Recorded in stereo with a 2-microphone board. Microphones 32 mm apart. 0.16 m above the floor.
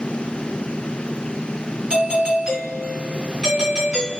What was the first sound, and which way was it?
A doorbell, 35° right (ahead or behind).